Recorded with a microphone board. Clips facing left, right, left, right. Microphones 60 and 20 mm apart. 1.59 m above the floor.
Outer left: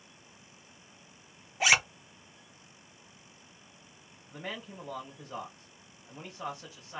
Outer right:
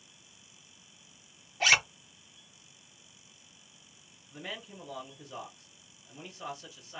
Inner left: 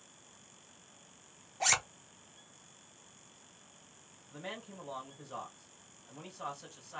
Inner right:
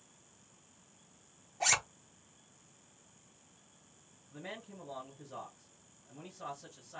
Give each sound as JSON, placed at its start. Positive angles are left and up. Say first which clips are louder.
{"t": 1.6, "sound": "a zipper", "louder": "even, even", "side_deg": 10, "distance_m": 0.7}
{"t": 4.3, "sound": "a man speaking", "louder": "outer left 2 dB, inner left 2 dB", "side_deg": 45, "distance_m": 1.8}